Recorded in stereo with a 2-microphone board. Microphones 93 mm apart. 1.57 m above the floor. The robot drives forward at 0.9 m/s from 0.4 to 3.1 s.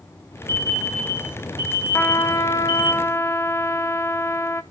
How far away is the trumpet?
About 0.8 m.